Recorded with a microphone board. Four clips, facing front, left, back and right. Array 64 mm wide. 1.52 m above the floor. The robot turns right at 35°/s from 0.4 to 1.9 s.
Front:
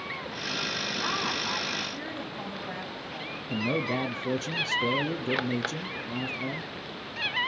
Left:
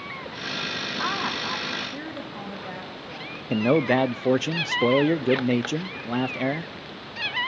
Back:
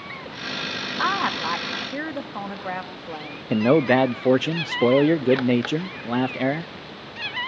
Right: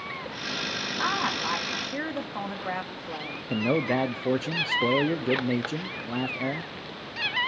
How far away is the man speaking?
About 0.5 m.